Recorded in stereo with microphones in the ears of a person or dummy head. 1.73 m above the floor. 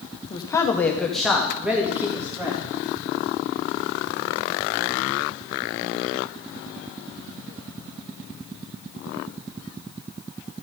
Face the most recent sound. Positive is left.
turn(degrees=-15)  # may be behind; listen again after turning